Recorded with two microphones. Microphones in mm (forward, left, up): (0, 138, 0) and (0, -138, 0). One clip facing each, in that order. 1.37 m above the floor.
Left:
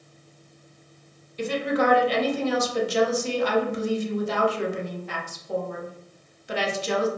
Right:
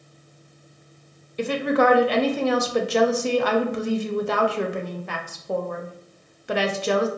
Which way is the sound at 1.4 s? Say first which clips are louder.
Right 3 dB; 65° right (ahead or behind).